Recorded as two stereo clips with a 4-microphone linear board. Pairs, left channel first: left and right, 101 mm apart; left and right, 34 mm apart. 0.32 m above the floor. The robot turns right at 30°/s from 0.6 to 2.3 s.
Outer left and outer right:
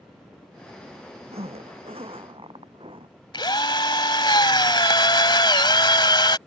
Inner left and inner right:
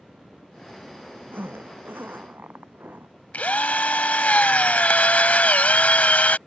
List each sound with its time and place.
1.3 s a zipper: 85° right; by 3.1 s 65° right (ahead or behind)
3.3 s a drill: 50° left (ahead or behind)